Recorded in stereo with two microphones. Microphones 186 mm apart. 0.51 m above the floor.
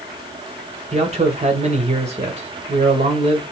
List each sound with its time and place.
0.9 s a man speaking: 35° right (ahead or behind), 1.7 m